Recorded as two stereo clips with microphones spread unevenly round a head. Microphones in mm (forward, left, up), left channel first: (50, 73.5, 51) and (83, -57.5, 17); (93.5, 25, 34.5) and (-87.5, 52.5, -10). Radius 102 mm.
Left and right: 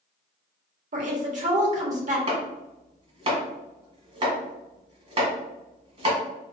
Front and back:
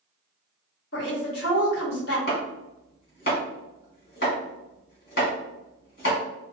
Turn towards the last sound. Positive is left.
turn(degrees=-30)